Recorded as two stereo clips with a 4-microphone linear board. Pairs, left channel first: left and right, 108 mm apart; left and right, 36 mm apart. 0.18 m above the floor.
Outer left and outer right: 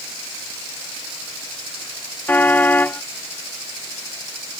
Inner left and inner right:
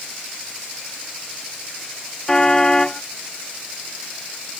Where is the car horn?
15° left (ahead or behind).